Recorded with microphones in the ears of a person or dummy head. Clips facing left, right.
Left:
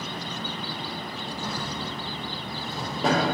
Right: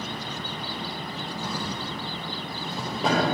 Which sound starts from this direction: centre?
A drawer, at 1.4 s.